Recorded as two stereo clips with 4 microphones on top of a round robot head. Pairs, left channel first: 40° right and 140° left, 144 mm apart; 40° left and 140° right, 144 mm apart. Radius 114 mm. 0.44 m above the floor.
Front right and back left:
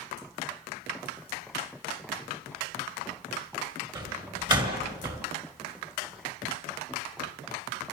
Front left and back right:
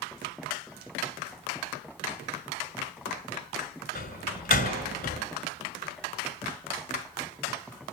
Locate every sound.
4.0 s a door slam: 75° left, 6 m